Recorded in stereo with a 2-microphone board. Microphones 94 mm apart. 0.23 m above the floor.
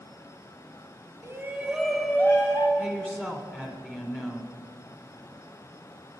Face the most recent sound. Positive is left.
turn(degrees=10)  # may be behind; listen again after turning